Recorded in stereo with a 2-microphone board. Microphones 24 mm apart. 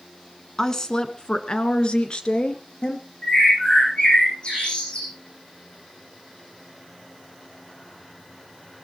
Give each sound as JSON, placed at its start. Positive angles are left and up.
{"t": 0.6, "sound": "a woman speaking", "side_deg": 20, "distance_m": 1.2}
{"t": 3.2, "sound": "a bird", "side_deg": 45, "distance_m": 8.5}